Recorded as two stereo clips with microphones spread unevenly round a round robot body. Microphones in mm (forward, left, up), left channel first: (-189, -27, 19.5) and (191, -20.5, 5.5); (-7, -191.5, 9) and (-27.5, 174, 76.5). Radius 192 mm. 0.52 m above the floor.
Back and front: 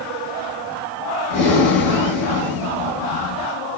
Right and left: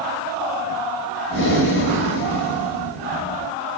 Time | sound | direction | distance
1.3 | breathing | 150° right | 1.3 m